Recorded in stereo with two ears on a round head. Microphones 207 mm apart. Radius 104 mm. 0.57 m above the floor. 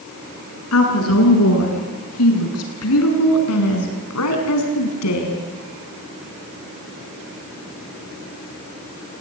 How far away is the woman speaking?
About 7 m.